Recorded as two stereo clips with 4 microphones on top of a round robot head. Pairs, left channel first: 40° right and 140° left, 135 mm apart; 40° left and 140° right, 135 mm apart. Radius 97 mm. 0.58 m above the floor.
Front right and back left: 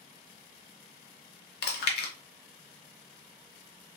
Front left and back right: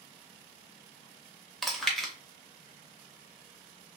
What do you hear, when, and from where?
1.6 s chewing: 45° right, 0.6 m